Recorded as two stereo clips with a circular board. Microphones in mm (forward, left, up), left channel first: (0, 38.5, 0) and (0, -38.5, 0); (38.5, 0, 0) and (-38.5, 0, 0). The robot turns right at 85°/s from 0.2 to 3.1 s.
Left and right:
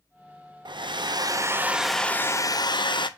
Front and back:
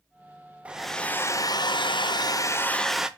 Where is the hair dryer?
105° right, 0.6 m; by 3.1 s 100° left, 0.6 m.